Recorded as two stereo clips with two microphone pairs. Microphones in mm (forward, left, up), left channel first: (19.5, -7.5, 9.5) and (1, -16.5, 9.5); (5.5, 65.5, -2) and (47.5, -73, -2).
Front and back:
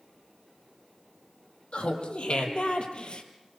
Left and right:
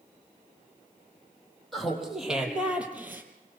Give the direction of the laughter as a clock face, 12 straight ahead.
11 o'clock.